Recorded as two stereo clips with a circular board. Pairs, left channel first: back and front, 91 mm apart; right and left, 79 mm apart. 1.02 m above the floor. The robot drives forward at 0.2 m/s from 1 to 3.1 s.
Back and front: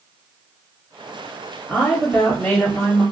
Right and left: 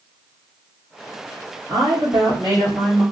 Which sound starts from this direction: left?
A woman speaking, at 1.7 s.